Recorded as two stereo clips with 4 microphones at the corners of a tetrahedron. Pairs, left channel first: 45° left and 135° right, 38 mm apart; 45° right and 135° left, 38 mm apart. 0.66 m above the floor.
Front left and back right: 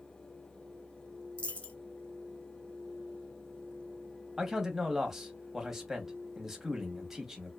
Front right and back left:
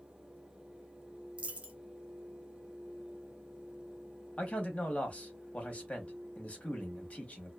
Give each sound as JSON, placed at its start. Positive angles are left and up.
{"t": 1.4, "sound": "a dropped coin", "azimuth_deg": 90, "distance_m": 0.6}
{"t": 4.4, "sound": "a man speaking", "azimuth_deg": -60, "distance_m": 0.8}